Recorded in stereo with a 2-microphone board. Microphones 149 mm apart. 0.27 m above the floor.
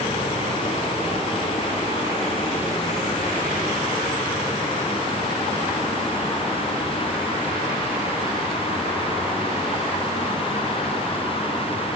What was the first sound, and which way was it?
Only background noise.